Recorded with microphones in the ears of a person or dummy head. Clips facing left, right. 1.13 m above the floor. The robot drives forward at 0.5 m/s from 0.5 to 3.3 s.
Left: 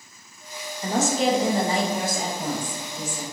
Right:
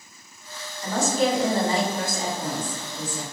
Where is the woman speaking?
15° left (ahead or behind), 0.6 m; by 3.2 s 5° left (ahead or behind), 1.6 m.